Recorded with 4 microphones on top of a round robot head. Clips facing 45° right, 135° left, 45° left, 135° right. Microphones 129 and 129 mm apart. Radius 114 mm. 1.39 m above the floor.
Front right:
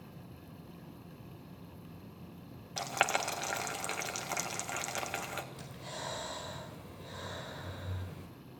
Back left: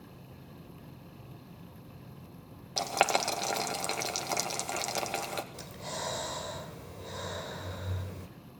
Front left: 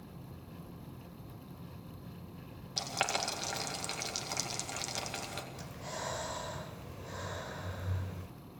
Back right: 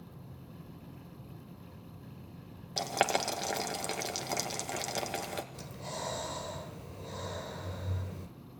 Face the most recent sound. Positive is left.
turn(degrees=170)